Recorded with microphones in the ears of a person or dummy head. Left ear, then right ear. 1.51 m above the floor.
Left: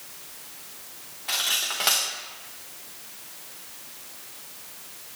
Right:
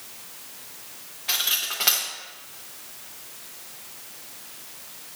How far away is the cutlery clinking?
About 0.8 m.